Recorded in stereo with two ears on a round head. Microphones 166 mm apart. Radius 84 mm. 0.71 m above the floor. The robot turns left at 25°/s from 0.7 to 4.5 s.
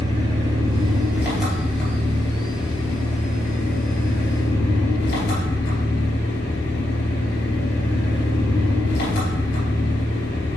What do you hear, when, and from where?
0.0 s an engine running: 155° right, 3 m; by 10.6 s 110° left, 3 m